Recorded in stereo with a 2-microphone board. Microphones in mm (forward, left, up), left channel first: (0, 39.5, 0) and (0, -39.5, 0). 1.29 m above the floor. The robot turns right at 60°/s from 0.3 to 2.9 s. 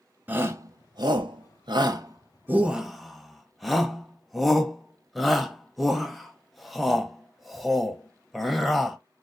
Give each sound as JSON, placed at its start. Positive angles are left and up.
{"t": 0.3, "sound": "a shout", "side_deg": -25, "distance_m": 0.6}